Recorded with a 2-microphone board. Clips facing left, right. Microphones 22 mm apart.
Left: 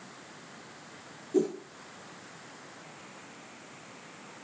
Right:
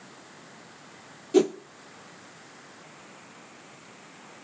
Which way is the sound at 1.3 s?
60° right (ahead or behind).